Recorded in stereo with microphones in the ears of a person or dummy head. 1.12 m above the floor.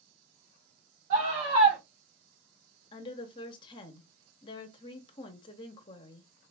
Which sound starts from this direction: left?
A woman speaking, at 2.9 s.